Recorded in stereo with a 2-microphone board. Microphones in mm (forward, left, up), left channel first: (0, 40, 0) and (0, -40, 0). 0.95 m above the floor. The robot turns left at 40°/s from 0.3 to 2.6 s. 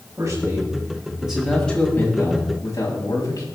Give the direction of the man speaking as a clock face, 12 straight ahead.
4 o'clock.